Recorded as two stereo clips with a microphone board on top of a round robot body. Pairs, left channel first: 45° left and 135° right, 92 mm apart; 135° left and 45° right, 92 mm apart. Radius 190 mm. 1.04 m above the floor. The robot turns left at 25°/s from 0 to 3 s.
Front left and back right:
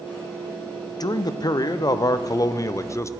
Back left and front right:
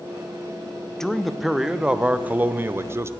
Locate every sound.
1.0 s a man speaking: 55° left, 0.6 m; by 3.1 s 5° left, 0.6 m